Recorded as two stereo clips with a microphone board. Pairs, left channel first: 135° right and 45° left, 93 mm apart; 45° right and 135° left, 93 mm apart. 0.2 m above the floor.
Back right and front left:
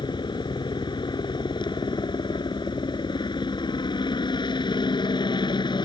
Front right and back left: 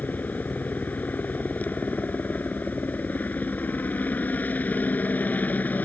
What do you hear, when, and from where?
0.0 s a helicopter: 115° right